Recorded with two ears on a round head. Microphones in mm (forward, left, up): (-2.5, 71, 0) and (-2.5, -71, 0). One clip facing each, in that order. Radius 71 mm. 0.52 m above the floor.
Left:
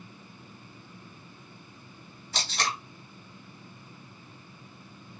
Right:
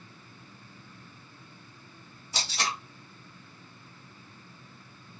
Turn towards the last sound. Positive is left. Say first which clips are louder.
# left 1 dB
turn(degrees=-5)  # may be behind; listen again after turning